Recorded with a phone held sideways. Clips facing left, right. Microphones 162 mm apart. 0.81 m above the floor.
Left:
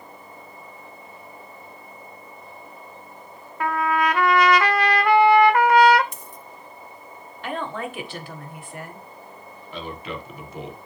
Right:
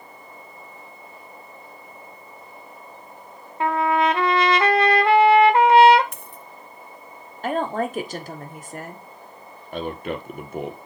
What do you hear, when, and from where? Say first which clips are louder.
3.6 s a trumpet: right 2 dB; 25° right (ahead or behind), 1.4 m
6.1 s a dropped coin: even; 60° right (ahead or behind), 1.1 m
7.4 s a woman speaking: right 6 dB; 40° right (ahead or behind), 1.8 m
9.7 s a man speaking: right 5 dB; 50° right (ahead or behind), 1.9 m